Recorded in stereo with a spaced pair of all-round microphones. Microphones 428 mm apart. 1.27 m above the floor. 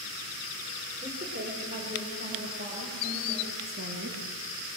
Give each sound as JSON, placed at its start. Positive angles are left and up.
{"t": 1.0, "sound": "a woman speaking", "side_deg": -20, "distance_m": 4.5}
{"t": 3.6, "sound": "a woman speaking", "side_deg": -30, "distance_m": 3.0}